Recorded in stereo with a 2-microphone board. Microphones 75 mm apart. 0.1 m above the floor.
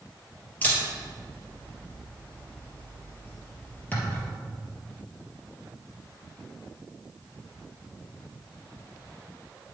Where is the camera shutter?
20° left (ahead or behind), 2.5 m.